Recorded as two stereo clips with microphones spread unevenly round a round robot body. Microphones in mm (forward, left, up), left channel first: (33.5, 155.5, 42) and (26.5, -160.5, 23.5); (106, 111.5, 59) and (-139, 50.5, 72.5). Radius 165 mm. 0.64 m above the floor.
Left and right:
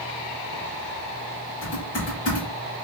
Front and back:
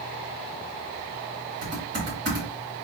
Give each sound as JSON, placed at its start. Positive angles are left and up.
{"t": 1.6, "sound": "typing on a keyboard", "azimuth_deg": 150, "distance_m": 2.0}